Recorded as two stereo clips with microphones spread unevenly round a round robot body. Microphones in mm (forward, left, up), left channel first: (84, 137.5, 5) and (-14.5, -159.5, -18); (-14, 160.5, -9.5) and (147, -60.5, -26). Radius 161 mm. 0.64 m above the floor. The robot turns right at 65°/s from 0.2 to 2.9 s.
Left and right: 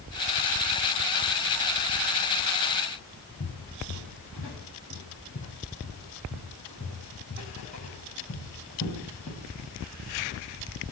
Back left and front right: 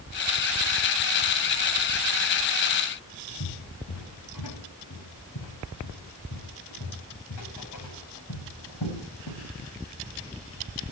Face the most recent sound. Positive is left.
turn(degrees=140)